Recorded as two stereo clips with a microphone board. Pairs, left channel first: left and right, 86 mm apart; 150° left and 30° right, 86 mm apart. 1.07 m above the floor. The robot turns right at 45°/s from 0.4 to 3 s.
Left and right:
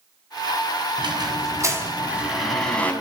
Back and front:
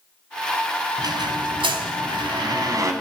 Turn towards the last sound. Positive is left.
turn(degrees=25)